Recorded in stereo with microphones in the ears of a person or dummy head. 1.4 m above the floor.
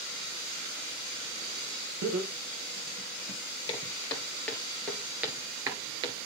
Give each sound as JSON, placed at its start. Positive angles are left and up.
{"t": 2.0, "sound": "laughter", "side_deg": -75, "distance_m": 0.8}
{"t": 3.7, "sound": "footsteps", "side_deg": 25, "distance_m": 2.0}